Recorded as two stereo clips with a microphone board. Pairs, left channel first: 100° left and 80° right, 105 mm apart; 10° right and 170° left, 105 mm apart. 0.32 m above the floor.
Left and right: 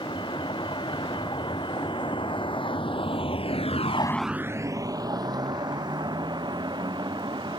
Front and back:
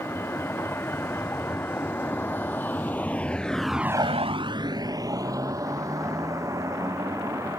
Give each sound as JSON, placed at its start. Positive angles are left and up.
{"t": 0.0, "sound": "a vehicle", "azimuth_deg": 60}